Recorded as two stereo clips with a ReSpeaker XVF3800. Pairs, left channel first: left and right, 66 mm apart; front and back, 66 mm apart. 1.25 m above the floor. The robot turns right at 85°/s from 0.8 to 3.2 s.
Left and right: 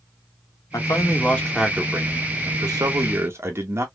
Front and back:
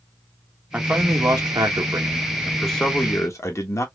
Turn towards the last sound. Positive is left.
turn(degrees=-40)